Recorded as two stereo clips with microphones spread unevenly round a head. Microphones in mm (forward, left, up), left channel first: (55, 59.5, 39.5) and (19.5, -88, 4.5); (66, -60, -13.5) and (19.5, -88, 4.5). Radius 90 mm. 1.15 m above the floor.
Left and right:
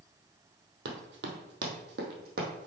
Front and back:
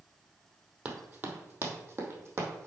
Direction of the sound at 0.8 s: 115° right.